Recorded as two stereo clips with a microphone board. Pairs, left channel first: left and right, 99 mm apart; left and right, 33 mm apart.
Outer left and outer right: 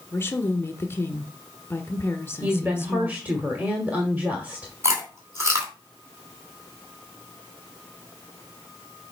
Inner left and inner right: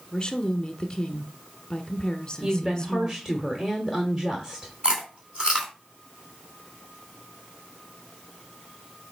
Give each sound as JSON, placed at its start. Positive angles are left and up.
{"t": 0.1, "sound": "a woman speaking", "side_deg": 25, "distance_m": 1.2}
{"t": 2.4, "sound": "a woman speaking", "side_deg": -20, "distance_m": 1.3}
{"t": 4.8, "sound": "chewing", "side_deg": -30, "distance_m": 2.5}